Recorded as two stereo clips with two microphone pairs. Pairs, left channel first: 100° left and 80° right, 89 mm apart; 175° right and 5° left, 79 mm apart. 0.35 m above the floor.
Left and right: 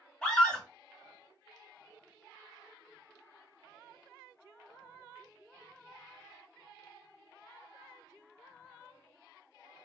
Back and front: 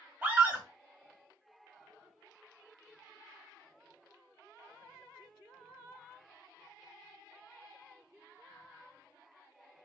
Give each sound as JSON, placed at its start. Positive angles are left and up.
{"t": 0.2, "sound": "a scream", "azimuth_deg": 35, "distance_m": 1.3}